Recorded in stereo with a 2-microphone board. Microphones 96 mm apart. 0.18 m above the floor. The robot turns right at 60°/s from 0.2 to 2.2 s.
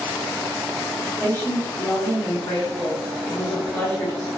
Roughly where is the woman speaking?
Centre.